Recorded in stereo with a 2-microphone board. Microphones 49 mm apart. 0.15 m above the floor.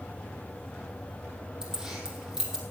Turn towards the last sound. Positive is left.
turn(degrees=-15)  # may be behind; listen again after turning